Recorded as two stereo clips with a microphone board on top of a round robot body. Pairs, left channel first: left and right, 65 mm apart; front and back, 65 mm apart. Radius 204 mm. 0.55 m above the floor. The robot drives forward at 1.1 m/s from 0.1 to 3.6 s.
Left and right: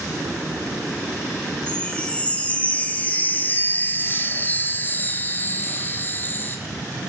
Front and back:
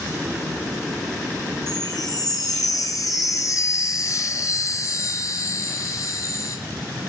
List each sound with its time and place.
1.7 s a chime: 20° left, 4.5 m; by 6.6 s 35° left, 3 m